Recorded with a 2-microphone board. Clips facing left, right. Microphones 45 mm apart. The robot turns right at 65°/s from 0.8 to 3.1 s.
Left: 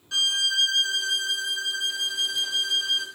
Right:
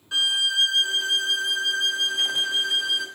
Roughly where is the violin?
Behind right.